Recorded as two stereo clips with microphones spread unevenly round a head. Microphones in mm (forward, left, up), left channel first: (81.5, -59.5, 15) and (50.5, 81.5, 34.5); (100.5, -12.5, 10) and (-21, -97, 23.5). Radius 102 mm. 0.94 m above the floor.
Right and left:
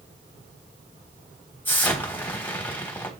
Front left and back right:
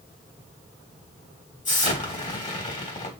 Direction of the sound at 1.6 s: Straight ahead.